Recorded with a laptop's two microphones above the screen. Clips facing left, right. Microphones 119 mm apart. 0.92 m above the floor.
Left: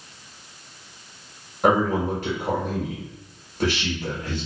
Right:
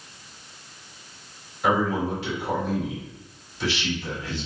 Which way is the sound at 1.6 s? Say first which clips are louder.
Left 3 dB; 50° left (ahead or behind).